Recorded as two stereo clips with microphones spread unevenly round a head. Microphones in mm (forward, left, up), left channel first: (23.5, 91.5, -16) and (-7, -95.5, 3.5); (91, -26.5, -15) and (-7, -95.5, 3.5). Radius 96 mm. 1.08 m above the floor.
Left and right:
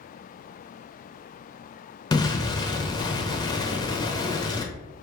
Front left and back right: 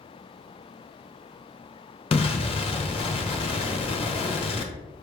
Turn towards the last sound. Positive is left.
turn(degrees=20)